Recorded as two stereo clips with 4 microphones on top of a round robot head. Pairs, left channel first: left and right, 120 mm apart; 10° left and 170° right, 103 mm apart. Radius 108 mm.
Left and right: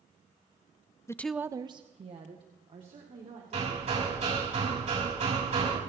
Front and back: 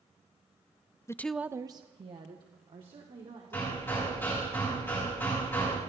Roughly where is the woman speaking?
Ahead left.